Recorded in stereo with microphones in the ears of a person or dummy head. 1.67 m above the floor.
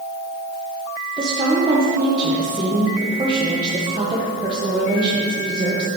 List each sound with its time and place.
1.2 s a woman speaking: 25° right (ahead or behind), 1.6 m